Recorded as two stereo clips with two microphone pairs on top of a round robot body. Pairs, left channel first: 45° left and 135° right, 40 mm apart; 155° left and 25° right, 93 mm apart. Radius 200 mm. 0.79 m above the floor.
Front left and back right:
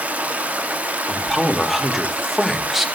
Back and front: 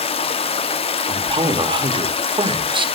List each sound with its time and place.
0.0 s running water: 170° left, 0.8 m
1.1 s a man speaking: 50° right, 2.5 m